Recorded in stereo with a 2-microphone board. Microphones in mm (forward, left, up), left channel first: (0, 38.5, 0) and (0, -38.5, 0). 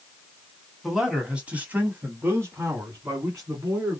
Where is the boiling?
No boiling in this recording.